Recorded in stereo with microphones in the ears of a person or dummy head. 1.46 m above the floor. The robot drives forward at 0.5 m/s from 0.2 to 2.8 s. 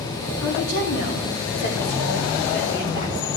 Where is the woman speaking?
70° left (ahead or behind), 2.5 m; by 3.3 s 50° left (ahead or behind), 3 m.